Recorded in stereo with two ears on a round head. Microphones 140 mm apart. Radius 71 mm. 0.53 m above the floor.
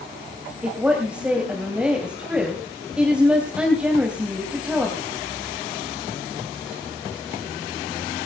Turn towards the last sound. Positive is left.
turn(degrees=-5)  # may be behind; listen again after turning